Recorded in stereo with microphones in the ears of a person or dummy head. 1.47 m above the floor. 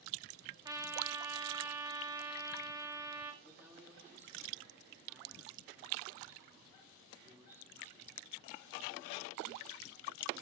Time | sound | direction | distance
0.7 | a trumpet | 20° right (ahead or behind) | 1.9 m
3.4 | a man speaking | 10° right (ahead or behind) | 4 m